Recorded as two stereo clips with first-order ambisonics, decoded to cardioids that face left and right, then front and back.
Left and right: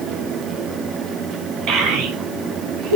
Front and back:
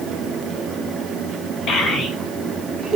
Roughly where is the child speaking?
Ahead right.